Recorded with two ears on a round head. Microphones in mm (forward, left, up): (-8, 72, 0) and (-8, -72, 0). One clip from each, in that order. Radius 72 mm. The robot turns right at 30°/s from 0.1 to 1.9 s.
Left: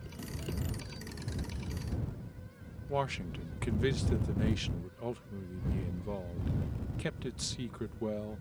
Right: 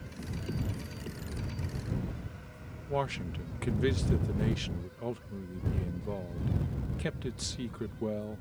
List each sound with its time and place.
2.9 s a man speaking: 10° left (ahead or behind)